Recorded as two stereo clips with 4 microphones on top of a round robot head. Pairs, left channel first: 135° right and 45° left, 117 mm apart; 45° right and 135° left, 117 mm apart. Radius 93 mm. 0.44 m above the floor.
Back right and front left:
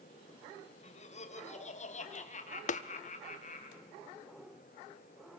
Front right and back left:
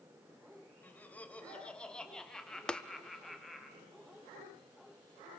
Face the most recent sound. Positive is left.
turn(degrees=-130)